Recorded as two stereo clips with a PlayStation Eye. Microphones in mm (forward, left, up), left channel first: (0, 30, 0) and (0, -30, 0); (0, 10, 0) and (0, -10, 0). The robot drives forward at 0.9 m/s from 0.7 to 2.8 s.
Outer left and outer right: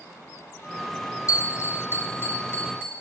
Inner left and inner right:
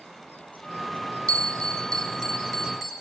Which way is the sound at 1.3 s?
60° left (ahead or behind).